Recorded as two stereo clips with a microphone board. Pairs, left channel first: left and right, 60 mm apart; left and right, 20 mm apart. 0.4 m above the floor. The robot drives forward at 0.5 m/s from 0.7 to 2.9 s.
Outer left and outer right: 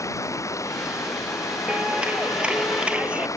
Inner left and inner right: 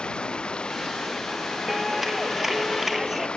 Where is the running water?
70° left (ahead or behind); by 3.4 s 75° left (ahead or behind).